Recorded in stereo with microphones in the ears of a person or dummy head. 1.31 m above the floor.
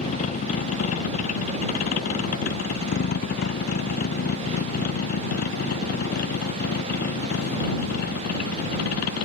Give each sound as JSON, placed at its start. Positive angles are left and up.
{"t": 0.0, "sound": "a vehicle", "side_deg": 40}